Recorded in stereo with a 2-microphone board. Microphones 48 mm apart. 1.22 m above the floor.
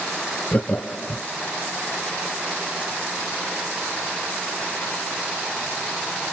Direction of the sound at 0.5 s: 40° left (ahead or behind).